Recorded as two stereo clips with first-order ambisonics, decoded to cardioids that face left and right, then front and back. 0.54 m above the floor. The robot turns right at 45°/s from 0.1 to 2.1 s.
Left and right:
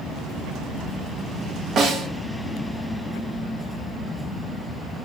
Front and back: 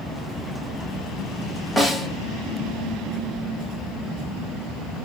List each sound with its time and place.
1.8 s a snare drum: 80° right, 0.7 m; by 2.1 s 65° right, 0.7 m